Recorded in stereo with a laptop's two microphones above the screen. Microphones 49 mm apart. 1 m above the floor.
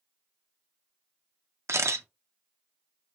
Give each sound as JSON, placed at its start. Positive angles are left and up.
{"t": 1.7, "sound": "a camera shutter", "side_deg": -70, "distance_m": 0.5}